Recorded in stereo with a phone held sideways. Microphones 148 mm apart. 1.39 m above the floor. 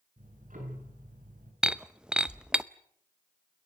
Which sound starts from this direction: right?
Ticking, at 0.2 s.